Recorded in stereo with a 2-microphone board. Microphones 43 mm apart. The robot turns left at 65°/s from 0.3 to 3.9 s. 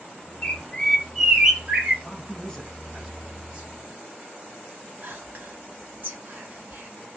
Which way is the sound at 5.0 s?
45° right (ahead or behind).